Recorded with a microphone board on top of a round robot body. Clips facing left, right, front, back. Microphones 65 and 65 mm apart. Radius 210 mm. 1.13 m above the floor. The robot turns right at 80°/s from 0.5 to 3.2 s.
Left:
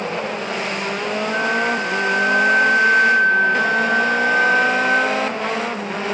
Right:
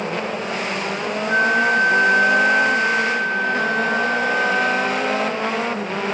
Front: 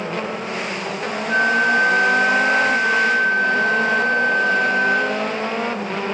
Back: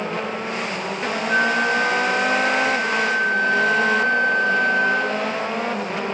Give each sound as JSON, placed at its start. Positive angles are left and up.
{"t": 1.3, "sound": "a flute", "azimuth_deg": -95, "distance_m": 1.9}